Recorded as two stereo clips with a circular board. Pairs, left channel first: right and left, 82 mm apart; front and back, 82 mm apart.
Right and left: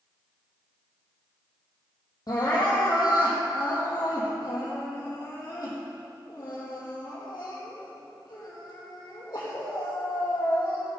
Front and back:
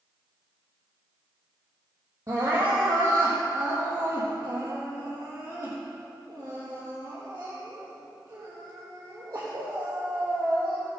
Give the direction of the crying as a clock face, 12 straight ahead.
4 o'clock.